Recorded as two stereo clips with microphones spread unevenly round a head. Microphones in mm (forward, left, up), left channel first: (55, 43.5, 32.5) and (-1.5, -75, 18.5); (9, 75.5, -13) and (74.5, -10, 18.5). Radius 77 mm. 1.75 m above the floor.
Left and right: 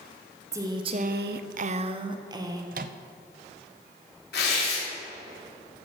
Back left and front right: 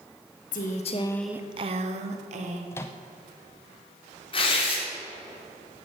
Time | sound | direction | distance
0.5 | a woman speaking | 170° left | 1.3 m
2.7 | a microwave | 150° right | 0.6 m
4.3 | tearing paper | 90° left | 4 m